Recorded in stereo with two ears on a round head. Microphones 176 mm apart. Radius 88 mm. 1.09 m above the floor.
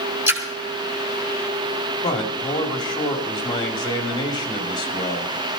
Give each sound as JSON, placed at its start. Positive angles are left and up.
{"t": 0.3, "sound": "a splash", "side_deg": -10, "distance_m": 2.5}
{"t": 2.0, "sound": "a man speaking", "side_deg": 25, "distance_m": 2.5}